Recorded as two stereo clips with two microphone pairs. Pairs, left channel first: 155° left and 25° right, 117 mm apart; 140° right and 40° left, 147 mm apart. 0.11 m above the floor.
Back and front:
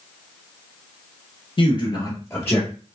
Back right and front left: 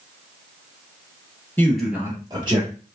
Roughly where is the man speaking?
Behind left.